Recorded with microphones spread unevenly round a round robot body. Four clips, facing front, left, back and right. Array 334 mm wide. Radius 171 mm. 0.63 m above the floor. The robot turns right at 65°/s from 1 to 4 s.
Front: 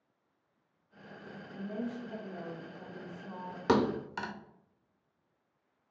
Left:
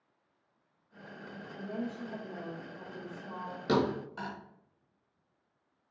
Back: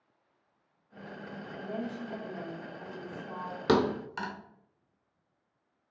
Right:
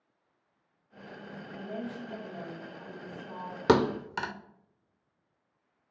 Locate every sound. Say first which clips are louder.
1.5 s a woman speaking: even, back 1 dB; 55° right, 1.3 m; by 3.6 s 75° left, 1.3 m
3.7 s a thud: right 5 dB, back 2 dB; 100° right, 0.5 m; by 4.3 s 80° right, 0.5 m